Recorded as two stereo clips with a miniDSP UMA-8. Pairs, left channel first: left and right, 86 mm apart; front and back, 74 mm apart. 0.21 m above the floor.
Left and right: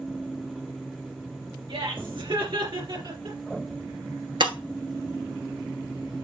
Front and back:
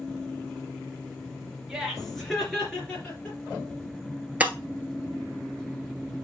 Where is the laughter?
95° right, 3 m; by 3.4 s 70° right, 3.5 m.